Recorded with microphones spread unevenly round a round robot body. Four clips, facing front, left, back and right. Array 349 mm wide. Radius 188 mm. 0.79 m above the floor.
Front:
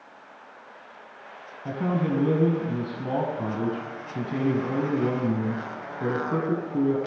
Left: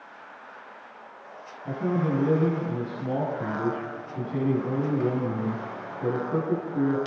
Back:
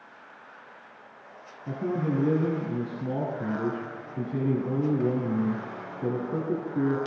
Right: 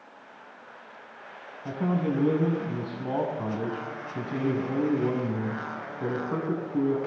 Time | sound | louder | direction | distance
1.6 | a man speaking | left 1 dB, front 2 dB | 15° right | 7.5 m